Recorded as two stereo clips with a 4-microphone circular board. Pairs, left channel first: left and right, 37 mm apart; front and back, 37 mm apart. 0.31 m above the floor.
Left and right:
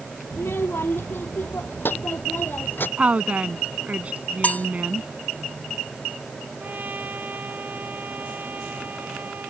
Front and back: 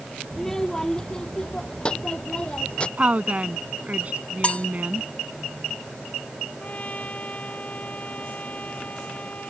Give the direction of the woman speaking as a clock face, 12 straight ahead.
5 o'clock.